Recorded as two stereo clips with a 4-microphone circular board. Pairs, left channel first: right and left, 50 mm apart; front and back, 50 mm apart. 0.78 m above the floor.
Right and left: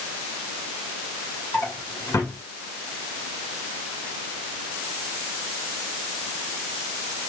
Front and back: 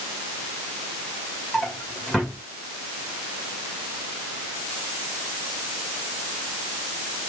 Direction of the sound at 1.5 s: 85° right.